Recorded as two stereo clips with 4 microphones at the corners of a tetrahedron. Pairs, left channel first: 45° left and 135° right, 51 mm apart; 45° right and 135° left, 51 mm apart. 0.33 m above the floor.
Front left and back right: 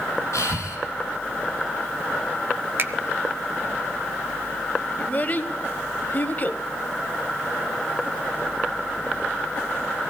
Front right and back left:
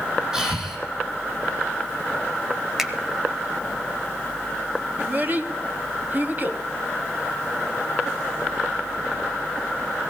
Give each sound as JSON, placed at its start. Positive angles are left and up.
{"t": 0.3, "sound": "breathing", "azimuth_deg": 60, "distance_m": 3.5}
{"t": 2.8, "sound": "a finger snap", "azimuth_deg": -145, "distance_m": 0.8}
{"t": 5.0, "sound": "a child speaking", "azimuth_deg": 95, "distance_m": 0.9}